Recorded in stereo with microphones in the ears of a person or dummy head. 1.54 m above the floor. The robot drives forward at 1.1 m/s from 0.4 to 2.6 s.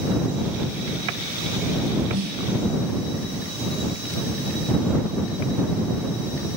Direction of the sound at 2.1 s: 80° right.